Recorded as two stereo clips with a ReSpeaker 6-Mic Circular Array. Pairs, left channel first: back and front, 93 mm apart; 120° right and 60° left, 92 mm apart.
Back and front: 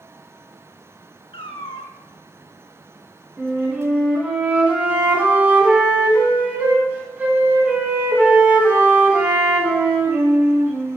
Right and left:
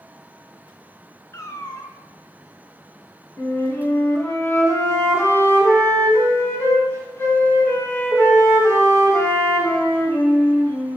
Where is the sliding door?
No sliding door in this recording.